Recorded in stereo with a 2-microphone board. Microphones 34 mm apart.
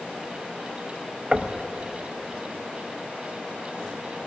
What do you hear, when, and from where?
1.3 s knocking: 25° right (ahead or behind), 0.6 m